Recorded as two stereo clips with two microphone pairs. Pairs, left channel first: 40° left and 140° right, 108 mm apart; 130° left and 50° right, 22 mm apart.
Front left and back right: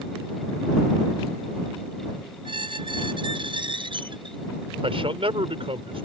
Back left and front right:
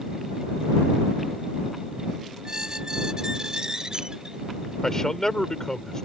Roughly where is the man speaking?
Behind.